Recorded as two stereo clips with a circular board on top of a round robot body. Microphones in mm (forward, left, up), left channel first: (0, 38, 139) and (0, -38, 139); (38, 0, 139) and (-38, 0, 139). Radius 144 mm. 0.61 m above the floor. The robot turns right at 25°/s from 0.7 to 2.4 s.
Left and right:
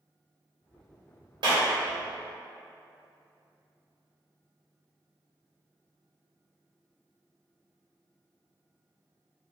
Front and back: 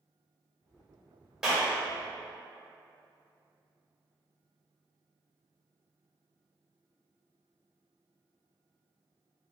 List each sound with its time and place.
1.4 s a clap: 100° right, 1.7 m; by 1.7 s 95° right, 1.7 m